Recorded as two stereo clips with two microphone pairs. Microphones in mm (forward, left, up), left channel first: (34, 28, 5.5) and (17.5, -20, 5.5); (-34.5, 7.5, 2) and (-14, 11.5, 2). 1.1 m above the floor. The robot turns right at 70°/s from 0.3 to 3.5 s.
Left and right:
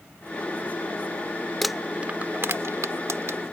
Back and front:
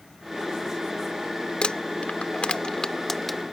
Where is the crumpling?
155° left; by 3.4 s 80° right.